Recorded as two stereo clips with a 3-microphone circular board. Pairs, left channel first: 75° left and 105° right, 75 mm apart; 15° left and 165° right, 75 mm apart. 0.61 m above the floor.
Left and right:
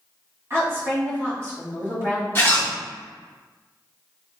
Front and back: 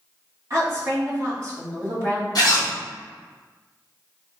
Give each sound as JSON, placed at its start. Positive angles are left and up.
{"t": 0.5, "sound": "a woman speaking", "azimuth_deg": -140, "distance_m": 1.8}
{"t": 2.4, "sound": "a zipper", "azimuth_deg": 20, "distance_m": 0.9}